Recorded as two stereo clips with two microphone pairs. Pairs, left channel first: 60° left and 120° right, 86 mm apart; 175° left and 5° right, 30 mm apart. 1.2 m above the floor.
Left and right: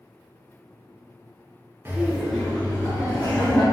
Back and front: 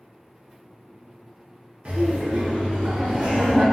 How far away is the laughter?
About 0.5 m.